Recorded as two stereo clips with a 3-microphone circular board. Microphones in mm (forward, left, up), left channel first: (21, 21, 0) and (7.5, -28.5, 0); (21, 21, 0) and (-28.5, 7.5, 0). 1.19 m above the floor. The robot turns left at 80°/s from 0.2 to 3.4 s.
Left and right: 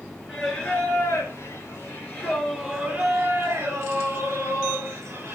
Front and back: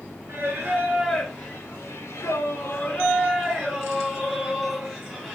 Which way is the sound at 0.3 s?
175° left.